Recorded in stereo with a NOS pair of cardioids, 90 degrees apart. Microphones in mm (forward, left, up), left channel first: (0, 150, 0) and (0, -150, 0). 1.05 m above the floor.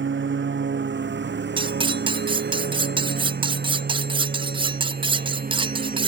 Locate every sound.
0.0 s a lawn mower: 40° right; by 6.1 s 30° right
1.6 s cutlery clinking: 15° right